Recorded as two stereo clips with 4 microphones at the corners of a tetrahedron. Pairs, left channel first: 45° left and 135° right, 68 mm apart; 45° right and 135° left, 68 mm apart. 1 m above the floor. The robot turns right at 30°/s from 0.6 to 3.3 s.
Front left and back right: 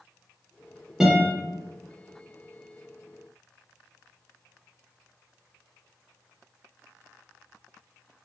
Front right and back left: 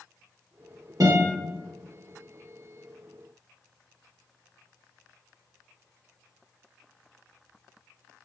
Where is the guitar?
145° left, 1.0 m; by 1.3 s 155° left, 1.0 m.